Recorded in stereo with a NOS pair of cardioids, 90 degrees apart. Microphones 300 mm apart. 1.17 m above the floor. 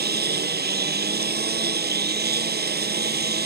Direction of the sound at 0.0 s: 30° right.